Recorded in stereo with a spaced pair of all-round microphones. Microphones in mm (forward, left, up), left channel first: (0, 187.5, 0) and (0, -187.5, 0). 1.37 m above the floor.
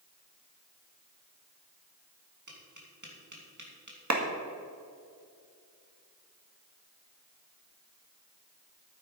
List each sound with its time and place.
2.5 s tapping: 50° right (ahead or behind), 2.5 m
4.1 s a clap: 45° right (ahead or behind), 1.7 m